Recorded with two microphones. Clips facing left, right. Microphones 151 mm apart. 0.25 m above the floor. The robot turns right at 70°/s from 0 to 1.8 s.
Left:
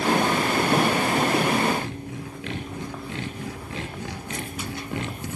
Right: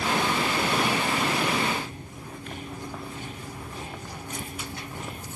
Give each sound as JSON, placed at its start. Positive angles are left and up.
{"t": 1.8, "sound": "sawing", "side_deg": 75, "distance_m": 2.5}